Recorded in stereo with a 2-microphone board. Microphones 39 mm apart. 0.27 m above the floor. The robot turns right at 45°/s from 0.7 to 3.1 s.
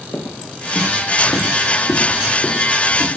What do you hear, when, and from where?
0.1 s footsteps: 55° left (ahead or behind), 5 m; by 3.1 s 25° left (ahead or behind), 7 m